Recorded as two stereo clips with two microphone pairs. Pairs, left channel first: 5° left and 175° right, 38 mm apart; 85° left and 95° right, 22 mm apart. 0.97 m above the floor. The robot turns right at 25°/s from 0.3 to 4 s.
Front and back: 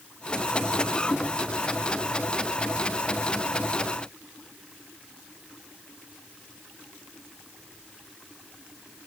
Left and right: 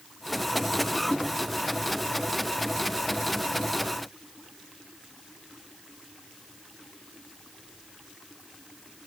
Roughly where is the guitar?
I don't hear a guitar.